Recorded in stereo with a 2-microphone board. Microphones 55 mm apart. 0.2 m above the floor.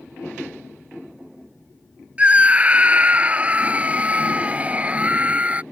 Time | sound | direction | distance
2.2 | a scream | 25° right (ahead or behind) | ?